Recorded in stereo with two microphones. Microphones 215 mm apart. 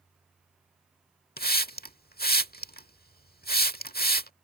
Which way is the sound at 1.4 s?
45° left (ahead or behind).